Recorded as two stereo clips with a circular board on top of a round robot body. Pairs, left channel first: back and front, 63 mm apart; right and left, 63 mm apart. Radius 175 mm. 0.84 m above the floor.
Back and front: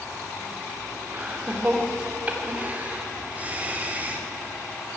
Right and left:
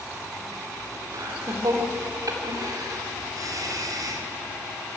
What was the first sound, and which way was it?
Laughter, 65° left.